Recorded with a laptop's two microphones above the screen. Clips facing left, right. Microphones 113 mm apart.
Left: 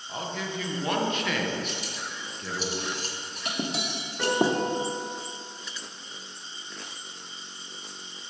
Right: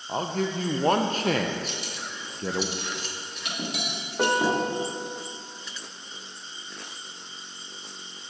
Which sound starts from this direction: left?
Cutlery clinking, at 1.7 s.